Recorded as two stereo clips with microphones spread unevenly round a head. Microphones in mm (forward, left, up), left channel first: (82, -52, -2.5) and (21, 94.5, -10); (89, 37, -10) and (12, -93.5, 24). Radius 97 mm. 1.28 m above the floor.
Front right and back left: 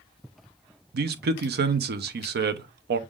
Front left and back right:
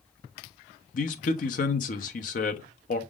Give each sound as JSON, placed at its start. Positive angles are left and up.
{"t": 0.9, "sound": "a man speaking", "azimuth_deg": 100, "distance_m": 0.6}